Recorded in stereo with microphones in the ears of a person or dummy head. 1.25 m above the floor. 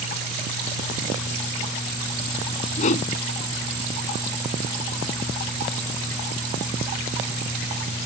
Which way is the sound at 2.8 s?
40° left (ahead or behind).